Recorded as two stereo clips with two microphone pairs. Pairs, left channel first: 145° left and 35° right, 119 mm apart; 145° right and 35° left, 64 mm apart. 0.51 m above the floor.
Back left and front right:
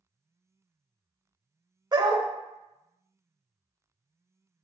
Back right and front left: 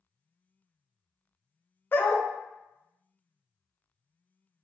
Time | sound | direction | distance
1.9 | a dog barking | 85° right | 0.5 m